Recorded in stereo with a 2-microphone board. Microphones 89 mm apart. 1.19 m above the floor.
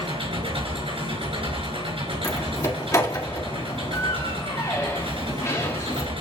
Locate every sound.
0.0 s an engine running: 80° right, 4 m
2.2 s a door slam: 30° left (ahead or behind), 1.7 m